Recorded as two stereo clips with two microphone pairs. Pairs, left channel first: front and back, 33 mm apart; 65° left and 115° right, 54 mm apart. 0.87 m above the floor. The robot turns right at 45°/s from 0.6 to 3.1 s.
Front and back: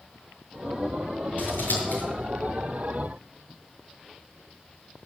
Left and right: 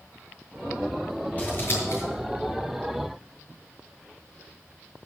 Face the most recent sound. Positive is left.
turn(degrees=75)